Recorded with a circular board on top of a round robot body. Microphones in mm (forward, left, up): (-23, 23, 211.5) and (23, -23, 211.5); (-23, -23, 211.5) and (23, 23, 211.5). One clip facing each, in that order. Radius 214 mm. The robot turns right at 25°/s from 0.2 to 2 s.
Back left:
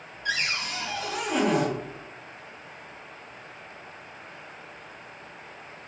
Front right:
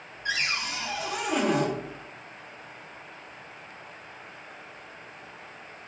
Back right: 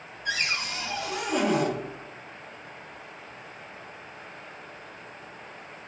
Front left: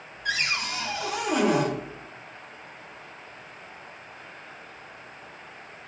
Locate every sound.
0.2 s a cupboard door: 20° left, 1.0 m; by 1.7 s 55° left, 1.0 m